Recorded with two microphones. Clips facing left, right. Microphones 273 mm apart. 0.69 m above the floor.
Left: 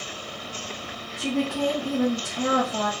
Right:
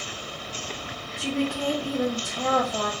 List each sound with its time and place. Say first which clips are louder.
1.2 s a woman speaking: left 2 dB; 20° left (ahead or behind), 1.3 m